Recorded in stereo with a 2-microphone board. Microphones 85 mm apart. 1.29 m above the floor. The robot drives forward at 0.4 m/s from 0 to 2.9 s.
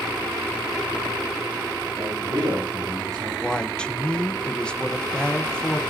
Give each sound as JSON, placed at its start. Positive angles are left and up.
{"t": 1.9, "sound": "a man speaking", "side_deg": -45, "distance_m": 8.5}
{"t": 3.4, "sound": "a woman speaking", "side_deg": 10, "distance_m": 1.2}